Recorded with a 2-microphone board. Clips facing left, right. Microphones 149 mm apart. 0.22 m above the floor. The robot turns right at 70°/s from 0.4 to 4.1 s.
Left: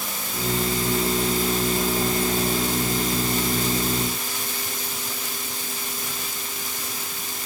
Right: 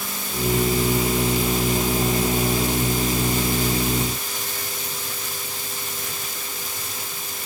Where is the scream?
I don't hear a scream.